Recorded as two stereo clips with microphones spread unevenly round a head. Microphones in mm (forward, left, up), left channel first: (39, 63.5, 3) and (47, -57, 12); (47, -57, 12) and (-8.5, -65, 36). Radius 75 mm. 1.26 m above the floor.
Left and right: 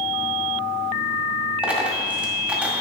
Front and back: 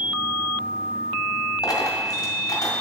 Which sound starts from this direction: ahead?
A dropped coin, at 1.6 s.